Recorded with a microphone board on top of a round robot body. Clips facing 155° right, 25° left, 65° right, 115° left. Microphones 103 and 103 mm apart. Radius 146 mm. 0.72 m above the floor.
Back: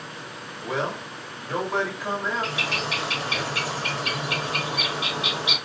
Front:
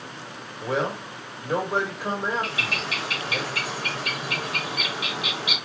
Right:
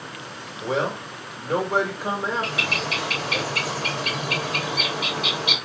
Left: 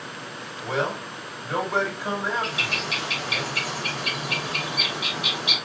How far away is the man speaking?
About 2.5 m.